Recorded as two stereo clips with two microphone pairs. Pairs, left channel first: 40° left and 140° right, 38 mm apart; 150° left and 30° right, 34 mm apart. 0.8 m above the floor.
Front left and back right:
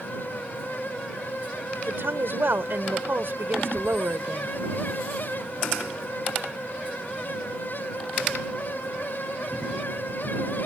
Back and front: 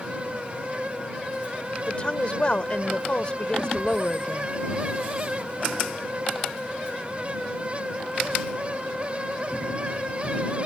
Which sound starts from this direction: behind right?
A woman speaking, at 1.9 s.